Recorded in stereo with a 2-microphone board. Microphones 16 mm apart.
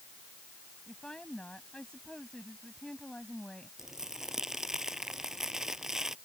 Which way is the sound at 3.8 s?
30° right (ahead or behind).